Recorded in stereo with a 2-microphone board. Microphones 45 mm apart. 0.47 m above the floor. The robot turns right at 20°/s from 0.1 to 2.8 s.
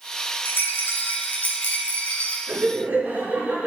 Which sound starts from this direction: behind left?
A rattle, at 0.5 s.